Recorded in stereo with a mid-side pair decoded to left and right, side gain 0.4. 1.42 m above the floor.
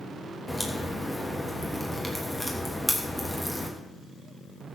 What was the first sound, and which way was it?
A crack, 10° left.